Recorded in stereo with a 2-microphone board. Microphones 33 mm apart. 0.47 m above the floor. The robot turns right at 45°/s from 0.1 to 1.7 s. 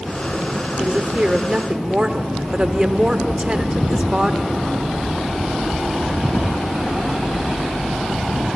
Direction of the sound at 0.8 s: 80° right.